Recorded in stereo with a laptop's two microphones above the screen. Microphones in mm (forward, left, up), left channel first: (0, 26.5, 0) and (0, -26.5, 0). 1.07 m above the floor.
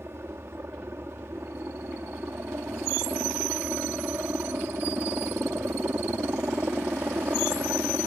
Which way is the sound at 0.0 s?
50° right (ahead or behind).